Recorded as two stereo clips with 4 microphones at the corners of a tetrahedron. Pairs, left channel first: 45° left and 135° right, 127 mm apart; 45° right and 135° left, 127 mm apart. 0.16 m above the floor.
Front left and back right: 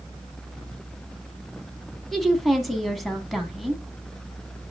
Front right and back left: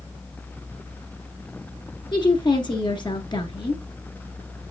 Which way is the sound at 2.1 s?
45° right.